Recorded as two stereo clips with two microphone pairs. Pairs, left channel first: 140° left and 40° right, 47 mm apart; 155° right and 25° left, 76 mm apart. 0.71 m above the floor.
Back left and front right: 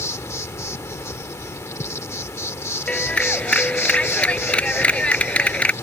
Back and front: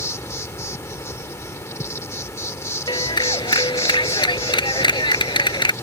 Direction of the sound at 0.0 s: 150° left.